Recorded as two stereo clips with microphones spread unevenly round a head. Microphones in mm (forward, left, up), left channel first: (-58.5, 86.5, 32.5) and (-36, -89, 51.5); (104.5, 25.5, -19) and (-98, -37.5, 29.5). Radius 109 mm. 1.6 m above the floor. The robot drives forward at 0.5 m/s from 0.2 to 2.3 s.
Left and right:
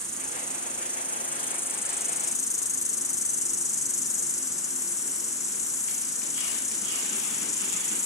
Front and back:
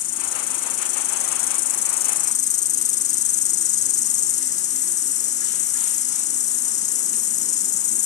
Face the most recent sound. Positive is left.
turn(degrees=35)